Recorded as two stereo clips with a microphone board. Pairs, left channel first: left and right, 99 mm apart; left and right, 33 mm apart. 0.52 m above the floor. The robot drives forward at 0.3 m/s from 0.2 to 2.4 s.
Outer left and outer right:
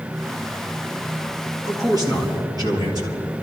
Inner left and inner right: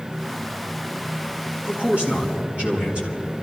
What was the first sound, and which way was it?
A man speaking, 45° right (ahead or behind).